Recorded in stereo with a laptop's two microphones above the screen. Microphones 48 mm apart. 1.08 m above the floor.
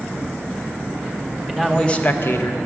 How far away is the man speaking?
About 1.5 m.